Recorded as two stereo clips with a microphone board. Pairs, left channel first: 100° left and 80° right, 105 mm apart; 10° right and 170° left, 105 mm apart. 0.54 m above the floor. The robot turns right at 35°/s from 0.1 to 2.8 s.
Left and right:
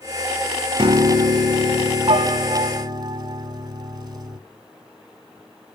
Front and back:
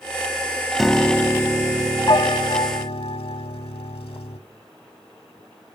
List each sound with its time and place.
0.8 s a piano: 100° right, 0.9 m; by 4.4 s 30° right, 0.9 m